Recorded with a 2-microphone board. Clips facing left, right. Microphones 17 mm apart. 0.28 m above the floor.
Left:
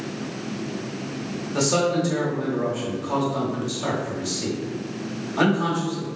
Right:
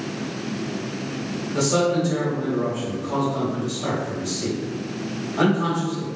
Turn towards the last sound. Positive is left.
turn(degrees=20)  # may be behind; listen again after turning